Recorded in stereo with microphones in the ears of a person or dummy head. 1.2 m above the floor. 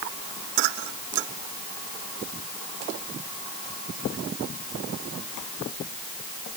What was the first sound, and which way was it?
Only background noise.